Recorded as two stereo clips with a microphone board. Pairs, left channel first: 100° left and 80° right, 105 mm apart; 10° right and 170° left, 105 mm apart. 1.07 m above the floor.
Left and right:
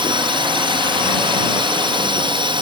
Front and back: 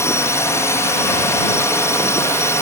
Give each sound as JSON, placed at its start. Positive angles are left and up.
{"t": 0.0, "sound": "a drone", "azimuth_deg": -65}